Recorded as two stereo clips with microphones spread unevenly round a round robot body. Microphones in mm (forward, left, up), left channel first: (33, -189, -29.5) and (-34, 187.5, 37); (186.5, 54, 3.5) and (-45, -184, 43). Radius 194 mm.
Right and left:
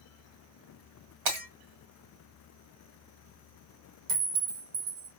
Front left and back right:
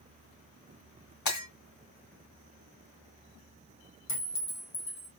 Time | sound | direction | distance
1.2 | breaking glass | 110° left | 2 m
4.1 | a clink | 95° left | 1.5 m